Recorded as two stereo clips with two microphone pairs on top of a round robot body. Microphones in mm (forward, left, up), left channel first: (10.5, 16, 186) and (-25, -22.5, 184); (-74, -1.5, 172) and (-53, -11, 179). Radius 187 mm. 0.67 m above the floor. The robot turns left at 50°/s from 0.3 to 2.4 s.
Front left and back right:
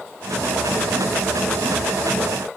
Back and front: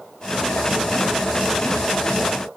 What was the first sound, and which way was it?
Only background noise.